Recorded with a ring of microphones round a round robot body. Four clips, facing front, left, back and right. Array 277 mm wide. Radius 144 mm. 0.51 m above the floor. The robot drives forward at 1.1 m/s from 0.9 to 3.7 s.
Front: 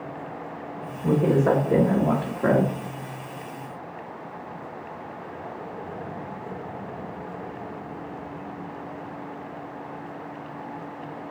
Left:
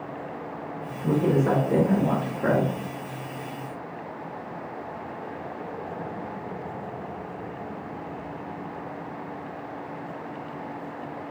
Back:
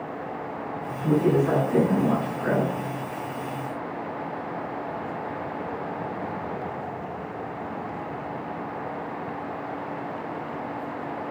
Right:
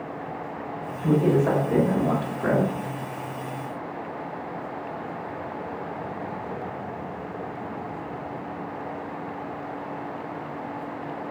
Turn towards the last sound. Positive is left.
turn(degrees=115)